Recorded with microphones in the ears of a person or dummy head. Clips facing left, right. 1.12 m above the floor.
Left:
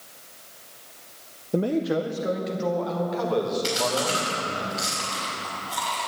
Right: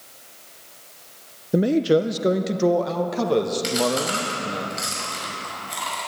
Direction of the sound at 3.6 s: 25° right (ahead or behind).